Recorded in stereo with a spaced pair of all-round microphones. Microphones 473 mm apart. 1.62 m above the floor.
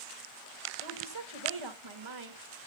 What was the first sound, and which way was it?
A woman speaking, 75° right (ahead or behind).